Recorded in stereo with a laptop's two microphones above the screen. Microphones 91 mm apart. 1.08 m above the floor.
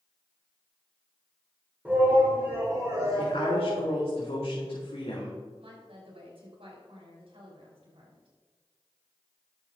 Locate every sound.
1.9 s a shout: 15° right (ahead or behind), 4.5 m; by 3.9 s 50° right (ahead or behind), 4.5 m
3.2 s a woman speaking: 75° left (ahead or behind), 2.5 m
5.6 s a woman speaking: 65° right (ahead or behind), 4 m